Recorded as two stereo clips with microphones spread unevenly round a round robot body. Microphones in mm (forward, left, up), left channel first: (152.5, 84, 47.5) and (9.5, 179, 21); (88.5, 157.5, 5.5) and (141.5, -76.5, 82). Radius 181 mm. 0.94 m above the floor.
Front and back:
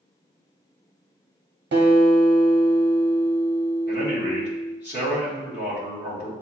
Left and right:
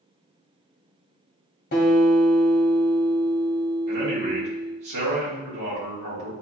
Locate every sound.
1.7 s a guitar: 160° left, 1.0 m
3.9 s a man speaking: 85° right, 2 m